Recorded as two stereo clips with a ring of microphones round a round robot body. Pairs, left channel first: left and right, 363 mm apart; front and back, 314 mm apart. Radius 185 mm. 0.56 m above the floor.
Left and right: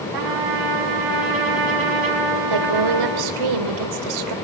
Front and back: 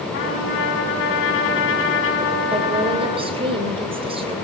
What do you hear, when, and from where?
0.1 s a trumpet: 60° right, 6 m
2.5 s a woman speaking: 105° right, 2.5 m